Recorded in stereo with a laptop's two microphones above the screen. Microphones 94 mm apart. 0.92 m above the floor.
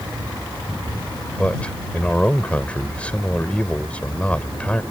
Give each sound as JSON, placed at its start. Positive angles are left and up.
{"t": 1.4, "sound": "a man speaking", "side_deg": 10}